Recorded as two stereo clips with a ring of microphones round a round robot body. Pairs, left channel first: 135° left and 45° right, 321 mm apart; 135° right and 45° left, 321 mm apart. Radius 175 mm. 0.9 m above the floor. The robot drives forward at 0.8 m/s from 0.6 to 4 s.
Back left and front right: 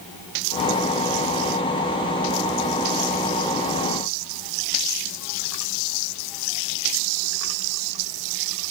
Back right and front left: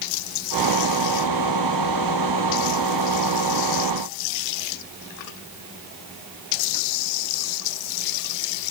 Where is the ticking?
I don't hear ticking.